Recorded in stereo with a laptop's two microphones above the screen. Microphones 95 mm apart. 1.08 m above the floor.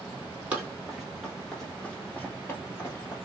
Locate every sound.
0.5 s running footsteps: 10° right (ahead or behind), 1.7 m; by 3.2 s 35° left (ahead or behind), 1.3 m